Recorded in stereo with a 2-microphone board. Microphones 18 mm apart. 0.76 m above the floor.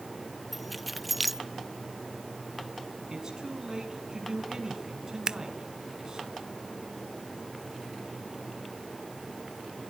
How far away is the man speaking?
About 8.5 m.